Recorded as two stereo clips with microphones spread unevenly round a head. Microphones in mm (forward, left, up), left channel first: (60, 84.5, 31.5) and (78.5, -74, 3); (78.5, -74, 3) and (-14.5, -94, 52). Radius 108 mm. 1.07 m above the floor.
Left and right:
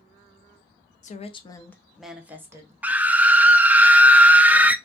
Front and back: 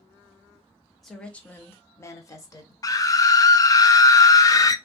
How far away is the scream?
About 0.5 m.